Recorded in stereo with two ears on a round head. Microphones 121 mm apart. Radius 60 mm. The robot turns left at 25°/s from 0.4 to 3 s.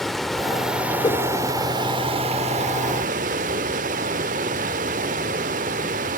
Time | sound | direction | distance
0.0 | running water | straight ahead | 0.9 m
1.0 | a whoosh | 30° left (ahead or behind) | 1.8 m